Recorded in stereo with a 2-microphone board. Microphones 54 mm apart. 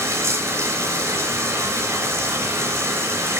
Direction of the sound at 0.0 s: 60° right (ahead or behind).